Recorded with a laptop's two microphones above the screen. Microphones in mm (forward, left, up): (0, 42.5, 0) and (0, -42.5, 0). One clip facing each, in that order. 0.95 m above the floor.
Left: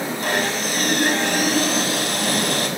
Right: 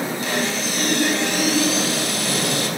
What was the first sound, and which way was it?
Sawing, 55° left (ahead or behind).